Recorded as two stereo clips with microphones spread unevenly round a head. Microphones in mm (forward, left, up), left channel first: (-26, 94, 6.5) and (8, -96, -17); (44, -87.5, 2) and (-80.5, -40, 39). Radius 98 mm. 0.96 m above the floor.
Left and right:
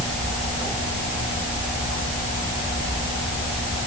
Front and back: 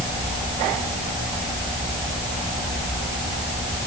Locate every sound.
Only background noise.